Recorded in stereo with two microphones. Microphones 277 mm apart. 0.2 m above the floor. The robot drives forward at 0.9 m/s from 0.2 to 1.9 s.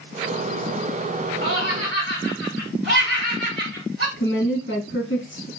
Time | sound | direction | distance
1.4 | laughter | 40° right (ahead or behind) | 1.4 m
4.2 | a woman speaking | 45° left (ahead or behind) | 1.8 m